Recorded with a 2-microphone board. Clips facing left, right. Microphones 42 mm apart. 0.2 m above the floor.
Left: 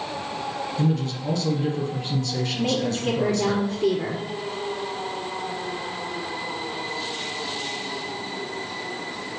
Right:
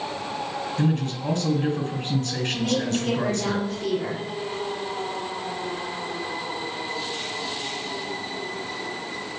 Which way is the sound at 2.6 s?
20° left (ahead or behind).